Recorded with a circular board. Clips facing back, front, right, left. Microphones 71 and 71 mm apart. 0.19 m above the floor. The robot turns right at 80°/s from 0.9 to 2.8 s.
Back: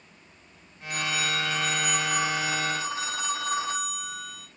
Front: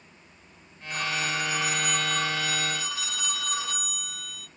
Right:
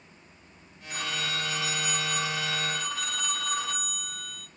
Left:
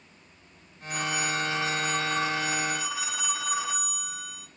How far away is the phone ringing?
About 0.9 m.